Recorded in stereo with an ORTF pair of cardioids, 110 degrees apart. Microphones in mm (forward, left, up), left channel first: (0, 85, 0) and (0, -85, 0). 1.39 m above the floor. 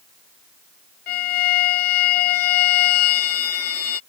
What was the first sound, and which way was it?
A violin, 70° left.